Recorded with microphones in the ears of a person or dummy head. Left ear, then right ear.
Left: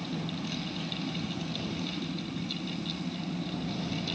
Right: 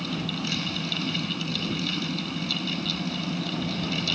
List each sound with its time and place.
0.0 s a fan: 35° right (ahead or behind)